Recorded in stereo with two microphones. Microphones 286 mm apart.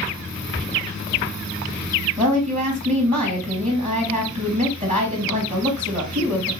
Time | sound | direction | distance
2.2 | a woman speaking | 30° right (ahead or behind) | 3 m